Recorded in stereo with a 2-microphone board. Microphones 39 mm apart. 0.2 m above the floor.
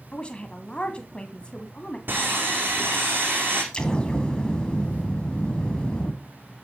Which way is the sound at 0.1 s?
25° left (ahead or behind).